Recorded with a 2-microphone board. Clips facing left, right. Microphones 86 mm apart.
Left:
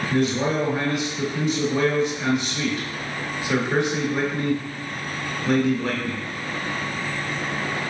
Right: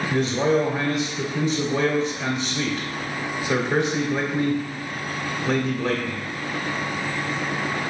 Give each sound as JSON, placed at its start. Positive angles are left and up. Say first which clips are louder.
{"t": 0.1, "sound": "a man speaking", "louder": "right 1 dB", "side_deg": -5, "distance_m": 1.2}